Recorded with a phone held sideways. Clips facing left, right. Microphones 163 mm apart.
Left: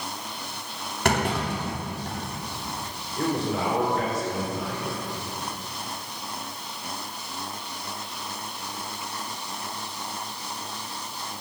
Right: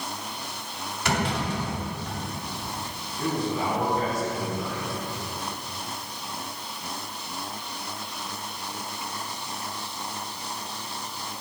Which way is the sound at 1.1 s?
55° left (ahead or behind).